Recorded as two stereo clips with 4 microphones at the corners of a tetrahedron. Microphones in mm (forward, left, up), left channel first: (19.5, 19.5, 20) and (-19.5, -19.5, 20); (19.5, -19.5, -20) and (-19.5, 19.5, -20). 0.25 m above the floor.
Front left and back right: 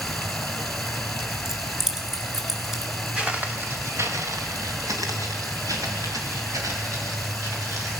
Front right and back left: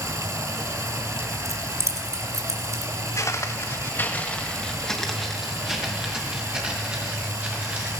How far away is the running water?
About 1.7 m.